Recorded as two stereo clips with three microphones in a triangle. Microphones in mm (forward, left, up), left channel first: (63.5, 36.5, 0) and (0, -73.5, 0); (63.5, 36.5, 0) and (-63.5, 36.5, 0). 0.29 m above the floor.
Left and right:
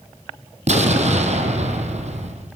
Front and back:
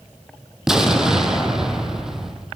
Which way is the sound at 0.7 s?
95° right.